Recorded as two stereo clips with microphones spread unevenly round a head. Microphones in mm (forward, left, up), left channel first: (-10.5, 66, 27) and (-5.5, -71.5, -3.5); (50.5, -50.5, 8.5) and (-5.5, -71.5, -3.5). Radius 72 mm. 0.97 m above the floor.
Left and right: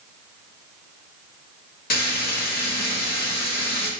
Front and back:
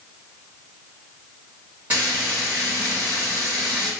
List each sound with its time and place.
1.9 s frying: 120° left, 1.0 m